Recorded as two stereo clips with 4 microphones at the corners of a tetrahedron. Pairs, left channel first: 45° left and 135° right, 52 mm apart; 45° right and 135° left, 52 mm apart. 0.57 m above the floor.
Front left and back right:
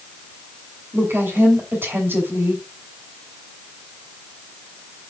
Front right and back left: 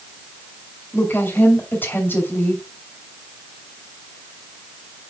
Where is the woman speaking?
90° right, 3 m.